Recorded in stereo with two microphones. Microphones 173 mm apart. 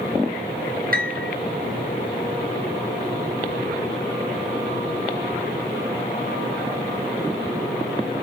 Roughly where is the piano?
Right.